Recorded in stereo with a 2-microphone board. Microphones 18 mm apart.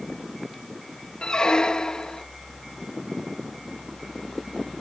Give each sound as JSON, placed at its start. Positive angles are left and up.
{"t": 1.2, "sound": "a squeak", "side_deg": 55}